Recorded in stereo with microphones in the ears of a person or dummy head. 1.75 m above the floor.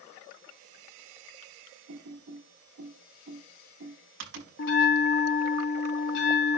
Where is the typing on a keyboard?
60° right (ahead or behind), 6 m.